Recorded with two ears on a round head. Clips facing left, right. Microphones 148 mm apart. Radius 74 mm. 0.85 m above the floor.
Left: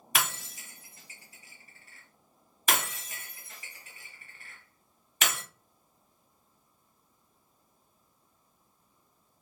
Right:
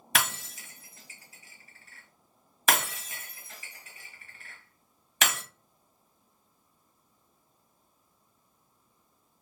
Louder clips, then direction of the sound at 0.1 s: Right 1 dB; 55° right (ahead or behind).